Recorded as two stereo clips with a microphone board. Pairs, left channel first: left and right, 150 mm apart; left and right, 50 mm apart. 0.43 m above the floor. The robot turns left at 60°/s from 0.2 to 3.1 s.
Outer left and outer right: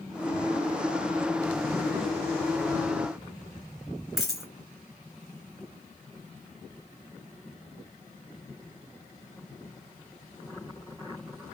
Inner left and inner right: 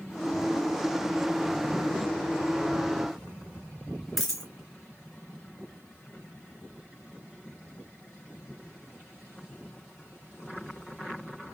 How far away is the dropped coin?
About 1.6 m.